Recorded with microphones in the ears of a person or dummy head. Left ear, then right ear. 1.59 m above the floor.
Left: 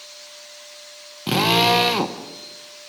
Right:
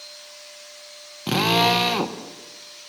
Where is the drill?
Centre (ahead or behind), 1.2 m.